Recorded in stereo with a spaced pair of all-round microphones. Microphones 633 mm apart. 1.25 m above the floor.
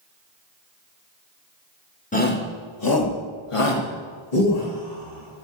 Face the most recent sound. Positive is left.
turn(degrees=85)